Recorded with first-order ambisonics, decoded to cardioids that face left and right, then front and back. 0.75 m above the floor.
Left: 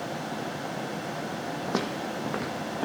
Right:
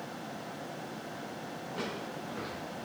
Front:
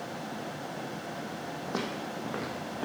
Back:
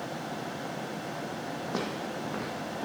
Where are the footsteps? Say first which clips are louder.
Left 7 dB, even; 90° left, 1.8 m; by 2.9 s 80° left, 3 m.